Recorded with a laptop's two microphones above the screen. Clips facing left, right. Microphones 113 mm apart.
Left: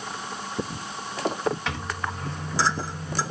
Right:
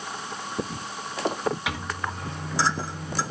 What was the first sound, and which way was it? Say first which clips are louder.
A microwave: even; 10° right (ahead or behind).